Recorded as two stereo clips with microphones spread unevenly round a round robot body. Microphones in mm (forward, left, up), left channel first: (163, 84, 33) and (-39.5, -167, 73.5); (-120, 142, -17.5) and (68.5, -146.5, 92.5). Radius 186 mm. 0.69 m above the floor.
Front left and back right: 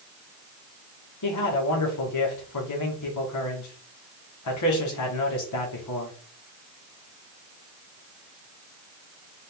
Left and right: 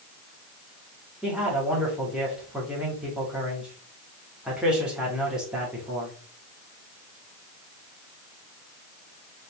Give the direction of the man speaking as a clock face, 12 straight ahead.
11 o'clock.